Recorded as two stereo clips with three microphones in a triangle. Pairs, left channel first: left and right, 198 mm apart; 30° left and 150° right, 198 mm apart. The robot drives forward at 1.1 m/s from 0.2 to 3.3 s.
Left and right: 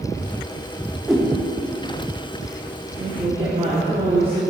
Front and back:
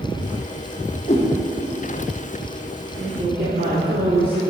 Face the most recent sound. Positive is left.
turn(degrees=-145)